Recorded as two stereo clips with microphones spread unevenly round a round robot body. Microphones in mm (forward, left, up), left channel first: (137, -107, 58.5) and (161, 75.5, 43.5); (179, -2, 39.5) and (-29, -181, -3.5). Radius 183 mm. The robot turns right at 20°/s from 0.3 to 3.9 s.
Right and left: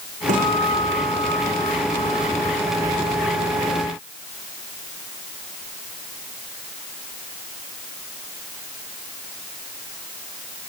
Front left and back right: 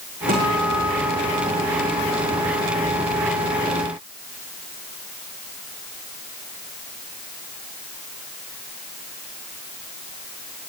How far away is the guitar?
About 7 m.